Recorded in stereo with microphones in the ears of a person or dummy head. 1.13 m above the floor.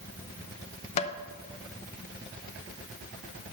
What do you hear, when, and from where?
1.0 s tapping: 30° left (ahead or behind), 0.6 m